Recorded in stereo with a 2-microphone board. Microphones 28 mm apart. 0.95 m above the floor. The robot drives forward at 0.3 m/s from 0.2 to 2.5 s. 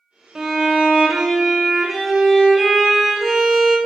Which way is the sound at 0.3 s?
20° right (ahead or behind).